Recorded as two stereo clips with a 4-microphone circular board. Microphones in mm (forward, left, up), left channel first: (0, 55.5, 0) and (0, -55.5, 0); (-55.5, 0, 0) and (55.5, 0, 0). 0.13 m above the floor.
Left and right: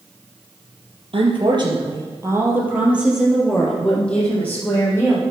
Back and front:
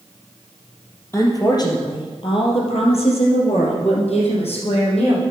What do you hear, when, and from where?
1.1 s a woman speaking: 120° right, 3.5 m; by 5.2 s 160° left, 5.5 m